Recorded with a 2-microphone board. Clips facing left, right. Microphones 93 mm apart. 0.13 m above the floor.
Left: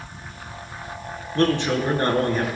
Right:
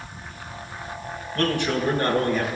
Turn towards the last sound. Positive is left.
turn(degrees=35)  # may be behind; listen again after turning